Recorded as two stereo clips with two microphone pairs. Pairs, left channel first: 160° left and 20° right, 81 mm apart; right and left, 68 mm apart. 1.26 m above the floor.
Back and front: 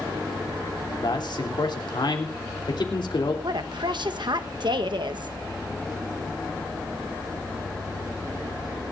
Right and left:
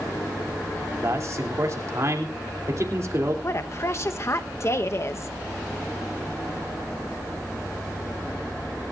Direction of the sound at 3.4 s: 45° right.